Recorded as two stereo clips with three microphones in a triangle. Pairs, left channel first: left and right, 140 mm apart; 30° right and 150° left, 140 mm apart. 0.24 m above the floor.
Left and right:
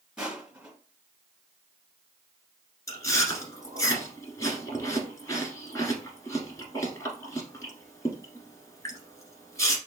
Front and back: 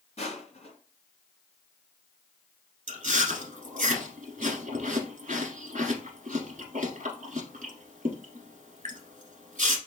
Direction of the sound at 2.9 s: 155° left.